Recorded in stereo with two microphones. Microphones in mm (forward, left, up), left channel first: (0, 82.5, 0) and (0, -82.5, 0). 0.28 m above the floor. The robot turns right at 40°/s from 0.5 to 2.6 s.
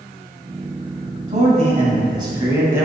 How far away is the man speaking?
About 2.5 m.